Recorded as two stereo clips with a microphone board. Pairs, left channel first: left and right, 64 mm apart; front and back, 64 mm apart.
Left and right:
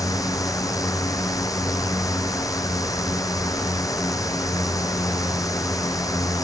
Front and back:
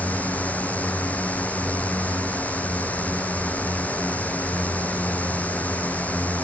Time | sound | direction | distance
0.0 | a drone | 65° left | ?